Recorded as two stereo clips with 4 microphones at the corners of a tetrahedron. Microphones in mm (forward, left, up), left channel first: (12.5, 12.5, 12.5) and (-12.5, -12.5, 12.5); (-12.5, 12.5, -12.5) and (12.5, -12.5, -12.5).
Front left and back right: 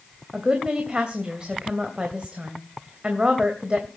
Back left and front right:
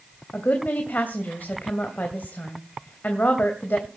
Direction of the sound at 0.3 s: 165° left.